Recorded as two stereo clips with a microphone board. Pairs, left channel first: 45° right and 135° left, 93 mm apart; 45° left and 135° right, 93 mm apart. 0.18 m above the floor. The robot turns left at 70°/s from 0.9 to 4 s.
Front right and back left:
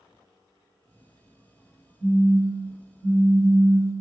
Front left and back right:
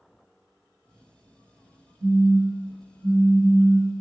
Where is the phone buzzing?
95° right, 1.6 m; by 3.9 s 130° left, 1.6 m.